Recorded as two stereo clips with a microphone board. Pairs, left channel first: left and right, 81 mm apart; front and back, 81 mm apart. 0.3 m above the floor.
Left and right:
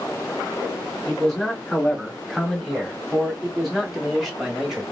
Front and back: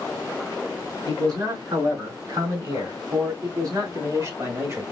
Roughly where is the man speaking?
Behind.